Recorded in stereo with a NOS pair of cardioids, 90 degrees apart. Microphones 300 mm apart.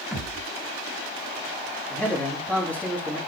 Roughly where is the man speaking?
Ahead.